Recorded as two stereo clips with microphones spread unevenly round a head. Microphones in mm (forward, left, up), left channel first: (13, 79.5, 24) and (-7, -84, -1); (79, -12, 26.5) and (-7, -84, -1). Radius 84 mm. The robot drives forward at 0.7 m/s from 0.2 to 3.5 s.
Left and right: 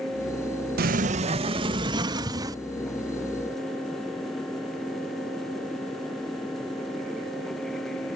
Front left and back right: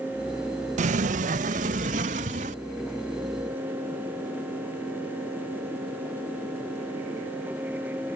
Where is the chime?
No chime in this recording.